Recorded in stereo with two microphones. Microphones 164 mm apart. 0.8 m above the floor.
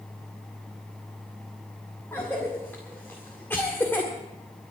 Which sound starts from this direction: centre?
A cough, at 2.1 s.